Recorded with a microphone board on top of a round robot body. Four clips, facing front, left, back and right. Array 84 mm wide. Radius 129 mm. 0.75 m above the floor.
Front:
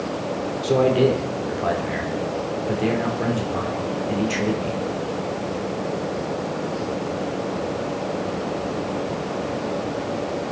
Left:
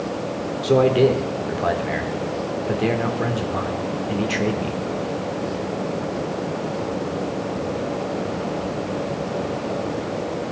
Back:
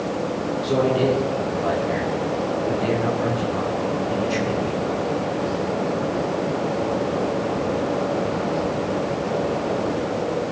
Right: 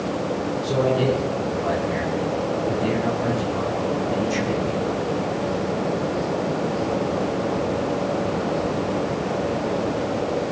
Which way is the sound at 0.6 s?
70° left.